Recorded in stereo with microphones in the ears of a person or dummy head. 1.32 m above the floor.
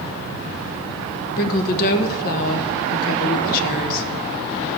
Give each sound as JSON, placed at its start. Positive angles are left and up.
{"t": 1.4, "sound": "a woman speaking", "side_deg": 45, "distance_m": 1.2}